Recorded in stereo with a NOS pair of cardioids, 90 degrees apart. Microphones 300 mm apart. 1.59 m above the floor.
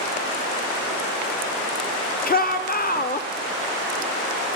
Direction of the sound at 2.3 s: 30° left.